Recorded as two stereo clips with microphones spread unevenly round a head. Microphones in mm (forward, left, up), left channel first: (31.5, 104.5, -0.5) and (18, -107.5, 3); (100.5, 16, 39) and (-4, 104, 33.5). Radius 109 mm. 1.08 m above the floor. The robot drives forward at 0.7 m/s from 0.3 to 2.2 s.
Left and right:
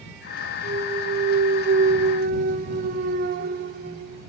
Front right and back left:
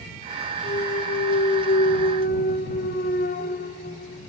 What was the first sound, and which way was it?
A clunk, 40° right.